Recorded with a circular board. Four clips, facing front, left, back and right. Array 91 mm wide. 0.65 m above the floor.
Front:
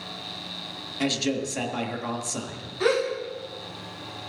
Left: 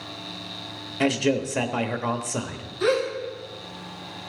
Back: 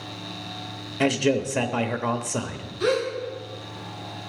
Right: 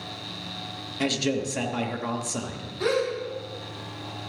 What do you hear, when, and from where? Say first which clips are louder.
1.0 s a man speaking: left 4 dB, back 5 dB; 145° left, 0.9 m
2.8 s a gasp: left 2 dB, even; 15° right, 5 m